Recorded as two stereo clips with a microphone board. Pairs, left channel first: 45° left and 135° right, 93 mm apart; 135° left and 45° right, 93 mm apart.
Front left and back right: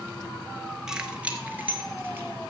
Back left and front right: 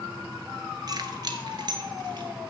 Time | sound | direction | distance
0.9 | keys jangling | 55° right | 1.2 m